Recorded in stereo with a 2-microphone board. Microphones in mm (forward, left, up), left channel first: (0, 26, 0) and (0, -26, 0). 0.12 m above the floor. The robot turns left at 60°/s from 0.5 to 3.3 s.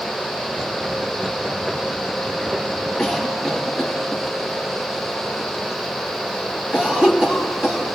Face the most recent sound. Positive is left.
turn(degrees=-15)  # may be behind; listen again after turning